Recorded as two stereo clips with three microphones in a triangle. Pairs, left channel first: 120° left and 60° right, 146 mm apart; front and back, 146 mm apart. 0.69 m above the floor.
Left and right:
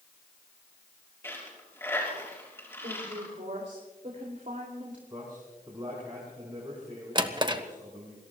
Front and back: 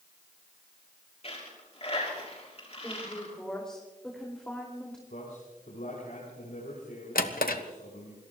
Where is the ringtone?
No ringtone in this recording.